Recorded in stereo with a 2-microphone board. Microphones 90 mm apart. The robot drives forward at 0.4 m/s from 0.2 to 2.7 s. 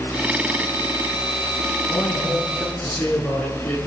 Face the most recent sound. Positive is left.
turn(degrees=15)  # may be behind; listen again after turning